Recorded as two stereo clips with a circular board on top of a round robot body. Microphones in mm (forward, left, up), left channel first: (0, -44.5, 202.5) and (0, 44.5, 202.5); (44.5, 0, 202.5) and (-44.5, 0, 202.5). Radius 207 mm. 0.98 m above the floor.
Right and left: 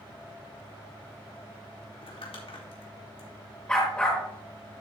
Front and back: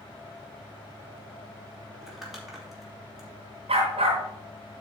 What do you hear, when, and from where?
1.9 s crumpling: 95° right, 2.5 m
3.7 s a dog barking: 170° right, 0.9 m